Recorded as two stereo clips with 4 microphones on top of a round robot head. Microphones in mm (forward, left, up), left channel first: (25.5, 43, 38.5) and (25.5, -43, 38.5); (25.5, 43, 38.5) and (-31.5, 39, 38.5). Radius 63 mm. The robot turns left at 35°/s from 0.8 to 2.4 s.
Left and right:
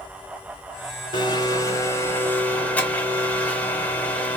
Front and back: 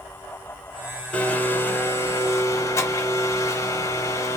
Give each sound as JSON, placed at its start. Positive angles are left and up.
{"t": 1.1, "sound": "a blender", "azimuth_deg": 65, "distance_m": 0.9}